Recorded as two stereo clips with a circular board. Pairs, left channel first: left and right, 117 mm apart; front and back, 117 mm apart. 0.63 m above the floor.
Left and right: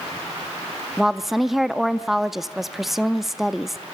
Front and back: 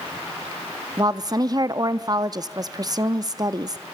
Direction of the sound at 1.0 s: 175° right.